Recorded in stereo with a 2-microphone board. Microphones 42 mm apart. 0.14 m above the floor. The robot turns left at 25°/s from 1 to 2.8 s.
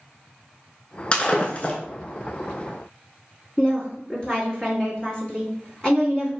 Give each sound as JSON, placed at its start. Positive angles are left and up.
{"t": 1.1, "sound": "breaking glass", "side_deg": 25, "distance_m": 0.6}
{"t": 3.6, "sound": "a woman speaking", "side_deg": 25, "distance_m": 1.6}